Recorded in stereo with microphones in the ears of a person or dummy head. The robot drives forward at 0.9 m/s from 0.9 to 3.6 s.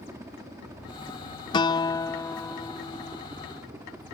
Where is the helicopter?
20° right (ahead or behind); by 4.1 s 15° right (ahead or behind).